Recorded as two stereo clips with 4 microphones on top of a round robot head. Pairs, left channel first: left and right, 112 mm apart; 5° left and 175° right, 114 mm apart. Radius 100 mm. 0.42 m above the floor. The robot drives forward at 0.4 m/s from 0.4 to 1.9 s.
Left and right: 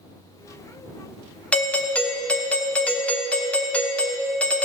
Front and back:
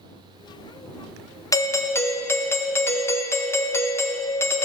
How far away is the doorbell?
About 1.3 m.